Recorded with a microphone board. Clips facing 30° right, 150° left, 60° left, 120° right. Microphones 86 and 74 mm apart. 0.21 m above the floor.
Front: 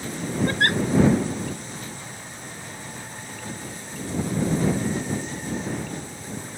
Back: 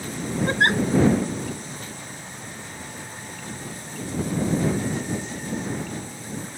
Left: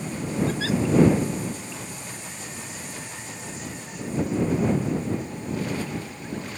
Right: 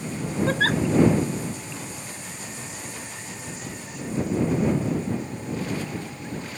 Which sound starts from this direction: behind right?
A giggle, at 0.5 s.